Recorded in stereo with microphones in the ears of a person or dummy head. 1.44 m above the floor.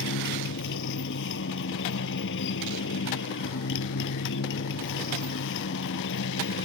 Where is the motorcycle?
70° left (ahead or behind).